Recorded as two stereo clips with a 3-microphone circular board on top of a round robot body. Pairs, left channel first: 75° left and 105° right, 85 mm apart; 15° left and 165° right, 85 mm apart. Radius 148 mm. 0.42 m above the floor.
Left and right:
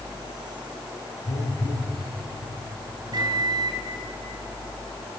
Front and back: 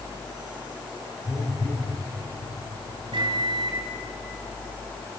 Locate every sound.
1.2 s a phone buzzing: 80° left, 7.5 m
3.1 s a microwave: 140° right, 4 m